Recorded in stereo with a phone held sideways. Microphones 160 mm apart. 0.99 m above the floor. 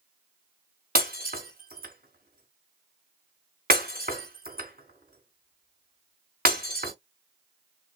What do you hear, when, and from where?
0.9 s breaking glass: 65° right (ahead or behind), 3.5 m